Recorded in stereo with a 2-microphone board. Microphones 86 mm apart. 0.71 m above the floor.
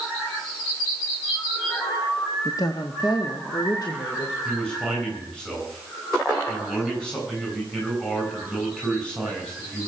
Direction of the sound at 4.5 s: 10° left (ahead or behind).